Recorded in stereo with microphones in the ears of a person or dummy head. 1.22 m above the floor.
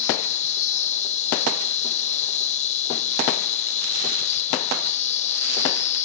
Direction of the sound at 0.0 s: 35° left (ahead or behind).